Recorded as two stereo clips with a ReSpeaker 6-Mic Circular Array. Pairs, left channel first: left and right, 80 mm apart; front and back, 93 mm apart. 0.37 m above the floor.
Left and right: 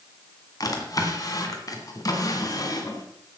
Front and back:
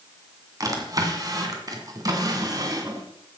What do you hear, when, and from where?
0.6 s a drawer: 130° left, 2.5 m